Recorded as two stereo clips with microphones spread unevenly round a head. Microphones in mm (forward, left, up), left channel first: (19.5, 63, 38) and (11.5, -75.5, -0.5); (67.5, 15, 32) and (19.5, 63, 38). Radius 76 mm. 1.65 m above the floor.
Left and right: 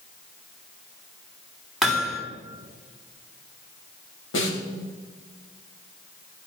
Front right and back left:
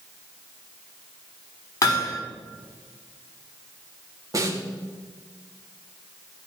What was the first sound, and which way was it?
Hammering, straight ahead.